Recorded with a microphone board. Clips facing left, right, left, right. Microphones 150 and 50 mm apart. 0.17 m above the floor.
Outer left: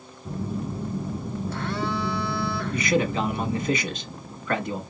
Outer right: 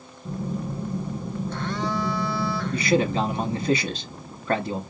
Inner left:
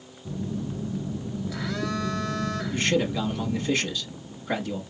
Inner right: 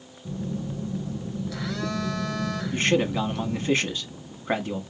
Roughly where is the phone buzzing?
Centre.